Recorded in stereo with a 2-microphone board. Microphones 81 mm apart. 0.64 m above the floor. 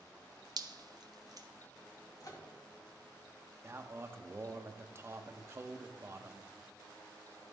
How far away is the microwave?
About 1.4 m.